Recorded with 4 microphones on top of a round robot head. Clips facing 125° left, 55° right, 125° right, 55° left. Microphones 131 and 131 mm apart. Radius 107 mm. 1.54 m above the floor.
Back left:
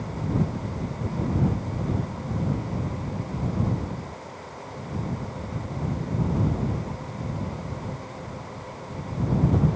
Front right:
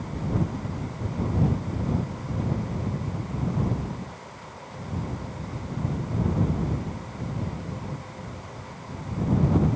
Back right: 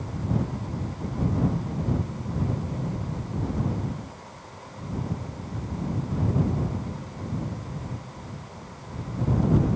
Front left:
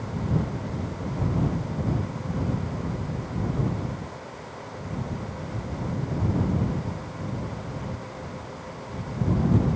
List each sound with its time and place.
Only background noise.